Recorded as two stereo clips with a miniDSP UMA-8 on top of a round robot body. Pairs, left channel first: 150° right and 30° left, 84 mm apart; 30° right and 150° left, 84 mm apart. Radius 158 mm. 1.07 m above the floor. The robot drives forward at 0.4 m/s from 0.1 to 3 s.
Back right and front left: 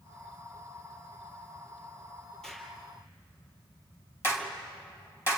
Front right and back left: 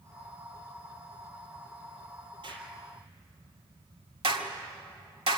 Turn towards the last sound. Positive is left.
turn(degrees=150)